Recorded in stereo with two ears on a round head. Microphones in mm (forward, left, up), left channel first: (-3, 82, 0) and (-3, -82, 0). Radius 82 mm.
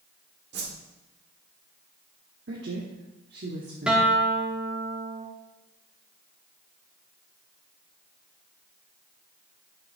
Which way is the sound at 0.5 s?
60° right (ahead or behind).